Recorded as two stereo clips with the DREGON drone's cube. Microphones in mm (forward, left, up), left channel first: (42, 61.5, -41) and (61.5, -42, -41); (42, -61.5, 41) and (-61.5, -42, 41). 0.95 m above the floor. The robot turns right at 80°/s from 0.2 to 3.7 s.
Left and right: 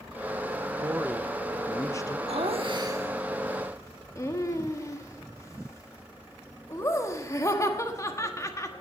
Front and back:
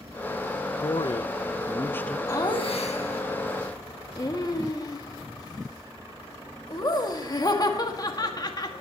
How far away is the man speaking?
About 0.6 m.